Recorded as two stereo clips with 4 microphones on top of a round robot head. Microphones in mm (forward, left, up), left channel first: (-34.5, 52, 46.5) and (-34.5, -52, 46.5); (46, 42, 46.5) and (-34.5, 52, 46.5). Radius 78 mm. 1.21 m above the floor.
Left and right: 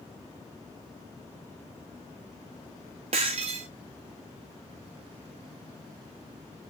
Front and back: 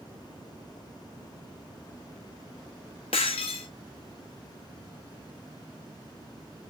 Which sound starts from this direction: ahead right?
Breaking glass, at 3.1 s.